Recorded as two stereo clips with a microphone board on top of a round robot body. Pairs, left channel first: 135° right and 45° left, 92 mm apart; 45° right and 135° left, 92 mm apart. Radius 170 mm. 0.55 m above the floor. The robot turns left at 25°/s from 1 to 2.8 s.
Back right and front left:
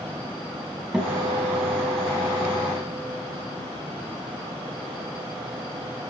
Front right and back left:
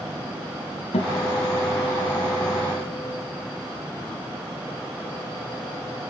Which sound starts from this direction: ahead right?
A guitar, at 0.9 s.